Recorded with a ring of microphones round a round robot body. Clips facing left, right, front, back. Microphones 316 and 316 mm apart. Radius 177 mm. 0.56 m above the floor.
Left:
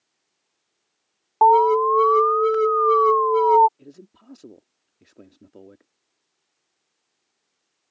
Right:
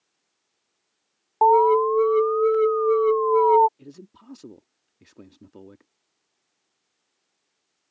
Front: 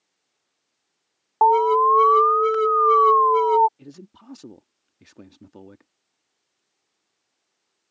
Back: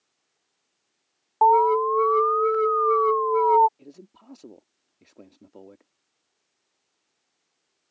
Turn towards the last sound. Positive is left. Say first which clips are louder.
# right 1 dB, front 3 dB
turn(degrees=-20)